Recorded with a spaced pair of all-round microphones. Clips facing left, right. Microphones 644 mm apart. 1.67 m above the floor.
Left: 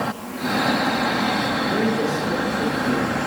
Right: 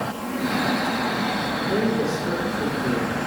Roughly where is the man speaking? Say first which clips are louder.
Even; right.